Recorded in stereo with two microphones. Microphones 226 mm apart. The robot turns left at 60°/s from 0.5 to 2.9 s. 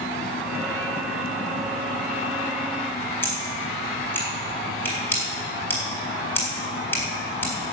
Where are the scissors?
10° left (ahead or behind), 4 m.